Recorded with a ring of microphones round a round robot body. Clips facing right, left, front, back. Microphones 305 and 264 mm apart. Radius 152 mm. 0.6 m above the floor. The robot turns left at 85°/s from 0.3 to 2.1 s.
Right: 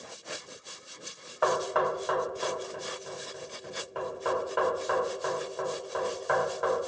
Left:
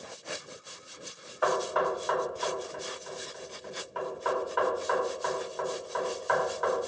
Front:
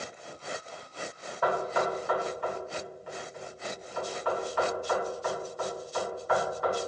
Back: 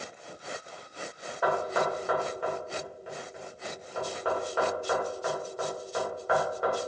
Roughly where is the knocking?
Right.